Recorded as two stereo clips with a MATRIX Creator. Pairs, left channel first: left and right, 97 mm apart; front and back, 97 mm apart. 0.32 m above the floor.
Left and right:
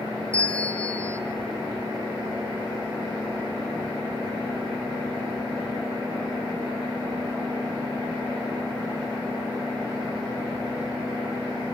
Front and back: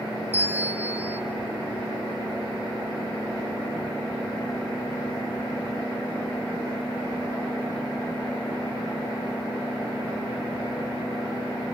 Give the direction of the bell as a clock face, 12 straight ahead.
7 o'clock.